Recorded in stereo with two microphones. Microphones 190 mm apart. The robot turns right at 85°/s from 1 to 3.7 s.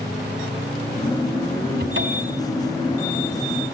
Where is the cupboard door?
120° right, 3 m; by 2.4 s 65° right, 3 m.